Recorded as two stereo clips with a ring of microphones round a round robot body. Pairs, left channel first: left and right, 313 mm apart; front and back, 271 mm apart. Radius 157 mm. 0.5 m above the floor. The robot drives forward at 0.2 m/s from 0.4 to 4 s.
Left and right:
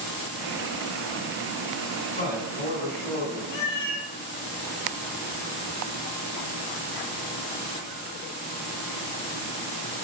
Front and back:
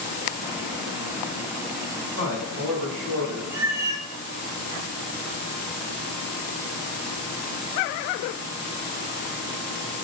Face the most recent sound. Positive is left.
turn(degrees=100)